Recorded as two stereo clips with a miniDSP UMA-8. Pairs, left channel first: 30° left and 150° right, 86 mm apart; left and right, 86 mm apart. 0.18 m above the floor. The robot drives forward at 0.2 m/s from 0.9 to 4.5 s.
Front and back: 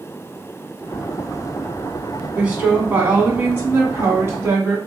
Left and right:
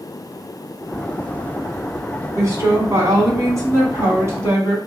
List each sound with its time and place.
2.4 s a woman speaking: 85° right, 1.2 m; by 4.8 s 115° right, 1.2 m